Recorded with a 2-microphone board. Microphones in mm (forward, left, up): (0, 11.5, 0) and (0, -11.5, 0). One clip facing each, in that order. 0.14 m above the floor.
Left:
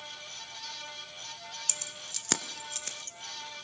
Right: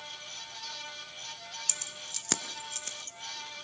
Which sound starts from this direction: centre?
Keys jangling, at 1.7 s.